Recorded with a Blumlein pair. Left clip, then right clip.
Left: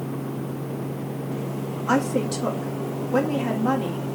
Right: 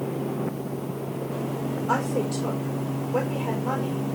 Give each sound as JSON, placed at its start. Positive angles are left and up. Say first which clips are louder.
{"t": 1.9, "sound": "a woman speaking", "louder": "left 3 dB", "azimuth_deg": 35, "distance_m": 2.0}